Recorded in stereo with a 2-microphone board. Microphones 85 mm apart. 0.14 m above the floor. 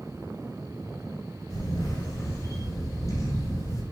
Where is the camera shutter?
45° left (ahead or behind), 1.4 m.